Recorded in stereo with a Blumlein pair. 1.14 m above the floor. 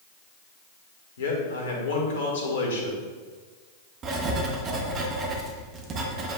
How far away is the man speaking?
About 2 m.